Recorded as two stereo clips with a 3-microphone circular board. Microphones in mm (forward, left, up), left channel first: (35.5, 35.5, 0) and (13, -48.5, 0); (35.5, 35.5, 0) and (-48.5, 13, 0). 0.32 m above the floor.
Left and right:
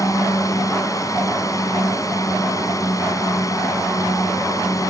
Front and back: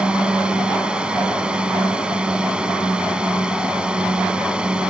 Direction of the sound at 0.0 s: 115° left.